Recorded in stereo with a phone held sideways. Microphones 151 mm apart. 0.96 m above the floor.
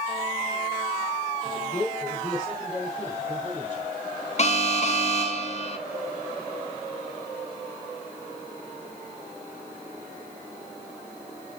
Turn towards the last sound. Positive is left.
turn(degrees=45)  # may be behind; listen again after turning